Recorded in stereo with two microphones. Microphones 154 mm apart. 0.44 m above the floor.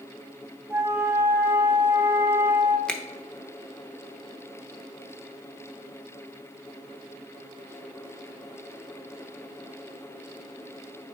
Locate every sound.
0.7 s a flute: 20° right (ahead or behind), 1.2 m
2.9 s a finger snap: 5° left (ahead or behind), 0.7 m